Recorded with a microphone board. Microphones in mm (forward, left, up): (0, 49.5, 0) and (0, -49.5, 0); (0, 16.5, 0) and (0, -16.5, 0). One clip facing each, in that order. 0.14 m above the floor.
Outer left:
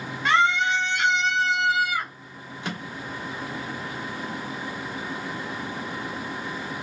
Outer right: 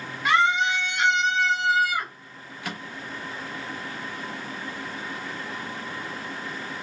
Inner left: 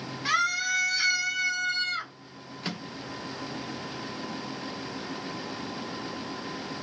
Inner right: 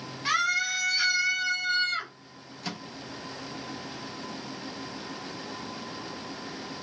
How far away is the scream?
About 1.3 m.